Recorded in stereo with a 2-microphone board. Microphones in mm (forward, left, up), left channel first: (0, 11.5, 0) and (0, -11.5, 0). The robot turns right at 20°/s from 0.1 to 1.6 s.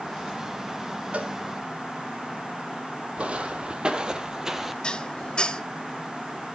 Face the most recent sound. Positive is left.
turn(degrees=35)  # may be behind; listen again after turning